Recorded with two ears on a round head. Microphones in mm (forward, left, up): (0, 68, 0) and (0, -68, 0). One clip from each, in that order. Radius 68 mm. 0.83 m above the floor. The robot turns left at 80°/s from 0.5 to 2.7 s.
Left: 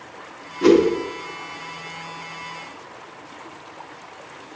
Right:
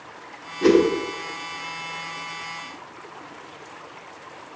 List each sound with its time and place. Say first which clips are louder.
0.6 s a whoosh: left 2 dB; 5° left (ahead or behind), 1.6 m; by 0.9 s 20° left (ahead or behind), 1.6 m